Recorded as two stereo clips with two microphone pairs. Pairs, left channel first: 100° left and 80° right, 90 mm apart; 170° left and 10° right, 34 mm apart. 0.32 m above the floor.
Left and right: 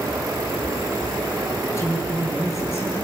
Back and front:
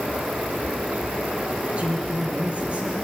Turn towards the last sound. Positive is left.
turn(degrees=45)